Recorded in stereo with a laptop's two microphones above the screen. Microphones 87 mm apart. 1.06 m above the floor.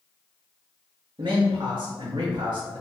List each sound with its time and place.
1.2 s a man speaking: 85° right, 1.0 m